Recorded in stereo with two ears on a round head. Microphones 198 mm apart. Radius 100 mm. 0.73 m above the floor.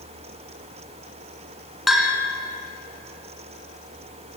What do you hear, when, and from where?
1.9 s a bell: centre (ahead or behind), 3 m